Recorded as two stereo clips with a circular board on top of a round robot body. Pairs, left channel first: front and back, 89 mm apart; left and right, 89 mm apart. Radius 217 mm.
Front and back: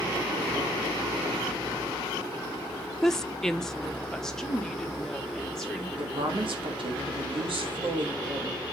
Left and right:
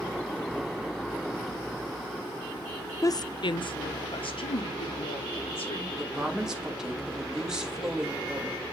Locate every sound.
3.0 s a woman speaking: 80° left, 0.6 m; by 5.9 s 85° left, 2.5 m
6.0 s a woman speaking: 170° right, 1.8 m